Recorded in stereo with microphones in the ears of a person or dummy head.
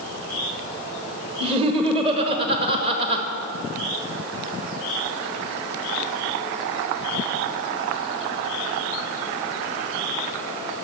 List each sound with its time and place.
1.4 s laughter: 30° right (ahead or behind), 1.2 m